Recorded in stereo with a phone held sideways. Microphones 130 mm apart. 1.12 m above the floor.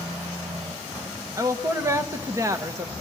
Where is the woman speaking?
25° right (ahead or behind), 1.2 m.